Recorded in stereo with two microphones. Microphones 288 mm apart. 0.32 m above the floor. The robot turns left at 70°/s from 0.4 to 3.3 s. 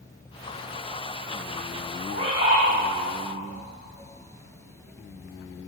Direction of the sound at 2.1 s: 130° left.